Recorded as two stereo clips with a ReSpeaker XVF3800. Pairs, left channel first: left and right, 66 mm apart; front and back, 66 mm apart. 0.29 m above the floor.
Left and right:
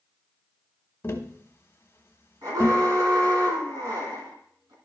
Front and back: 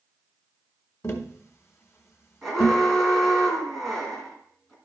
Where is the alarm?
85° right, 2 m.